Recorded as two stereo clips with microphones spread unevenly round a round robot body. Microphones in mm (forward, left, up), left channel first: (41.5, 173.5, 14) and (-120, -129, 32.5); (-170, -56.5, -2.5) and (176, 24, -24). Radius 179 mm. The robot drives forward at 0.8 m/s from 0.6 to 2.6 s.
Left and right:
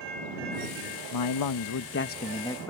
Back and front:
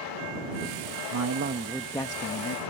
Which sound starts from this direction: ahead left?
A man speaking, at 1.1 s.